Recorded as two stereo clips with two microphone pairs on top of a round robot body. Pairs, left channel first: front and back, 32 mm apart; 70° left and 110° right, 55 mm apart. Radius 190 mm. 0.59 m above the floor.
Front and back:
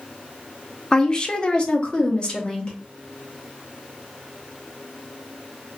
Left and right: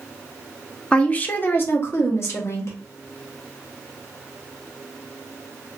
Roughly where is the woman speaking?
Ahead left.